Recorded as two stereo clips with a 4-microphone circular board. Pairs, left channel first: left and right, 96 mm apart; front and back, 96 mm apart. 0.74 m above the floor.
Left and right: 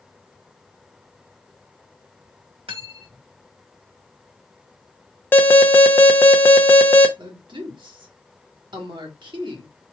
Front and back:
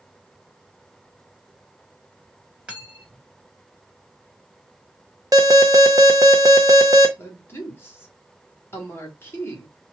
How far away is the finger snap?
I don't hear a finger snap.